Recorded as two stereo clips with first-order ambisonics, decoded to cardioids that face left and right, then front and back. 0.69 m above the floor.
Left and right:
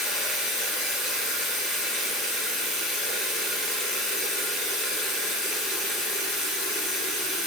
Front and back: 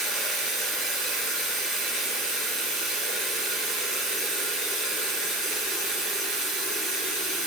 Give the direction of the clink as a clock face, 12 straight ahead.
I don't hear a clink.